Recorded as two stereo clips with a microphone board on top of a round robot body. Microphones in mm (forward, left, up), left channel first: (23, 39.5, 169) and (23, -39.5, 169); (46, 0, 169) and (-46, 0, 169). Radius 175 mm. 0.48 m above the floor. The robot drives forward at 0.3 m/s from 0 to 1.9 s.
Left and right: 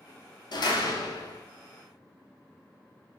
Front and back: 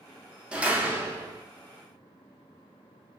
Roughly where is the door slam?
Left.